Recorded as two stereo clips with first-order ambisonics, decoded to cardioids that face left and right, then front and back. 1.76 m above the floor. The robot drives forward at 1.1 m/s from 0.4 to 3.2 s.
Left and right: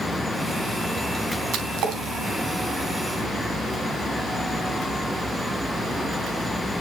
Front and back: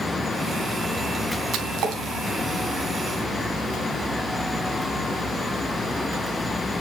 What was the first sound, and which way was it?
A splash, 130° right.